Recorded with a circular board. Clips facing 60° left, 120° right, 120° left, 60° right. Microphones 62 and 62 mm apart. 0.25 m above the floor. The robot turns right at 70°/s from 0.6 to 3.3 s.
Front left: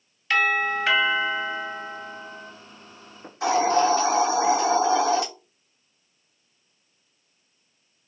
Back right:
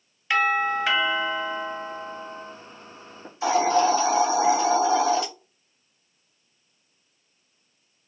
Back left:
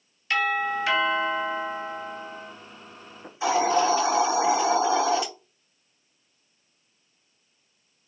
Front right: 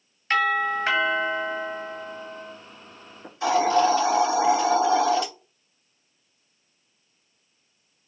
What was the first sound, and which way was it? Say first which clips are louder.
A doorbell: even, front right 2 dB; 55° right.